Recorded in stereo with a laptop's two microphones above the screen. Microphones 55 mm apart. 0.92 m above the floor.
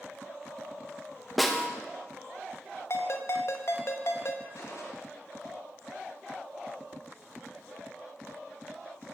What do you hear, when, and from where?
1.4 s a snare drum: centre (ahead or behind), 0.9 m
2.9 s a ringtone: 55° left (ahead or behind), 0.8 m
4.5 s a gunshot: 75° left (ahead or behind), 1.5 m